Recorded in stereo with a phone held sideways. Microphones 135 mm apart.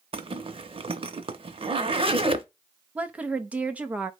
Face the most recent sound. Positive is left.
turn(degrees=-10)  # may be behind; listen again after turning